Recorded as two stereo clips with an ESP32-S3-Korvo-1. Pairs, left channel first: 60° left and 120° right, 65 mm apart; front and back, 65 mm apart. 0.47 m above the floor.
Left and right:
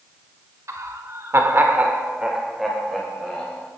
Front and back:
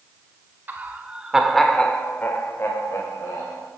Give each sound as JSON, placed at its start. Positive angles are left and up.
{"t": 0.7, "sound": "laughter", "azimuth_deg": -130, "distance_m": 1.7}